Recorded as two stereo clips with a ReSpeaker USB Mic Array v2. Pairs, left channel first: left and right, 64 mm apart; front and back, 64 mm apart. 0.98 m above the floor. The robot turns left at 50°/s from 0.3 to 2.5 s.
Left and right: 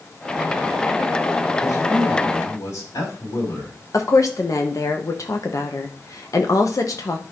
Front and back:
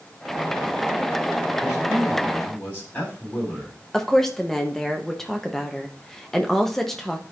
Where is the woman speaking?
80° left, 1.1 m.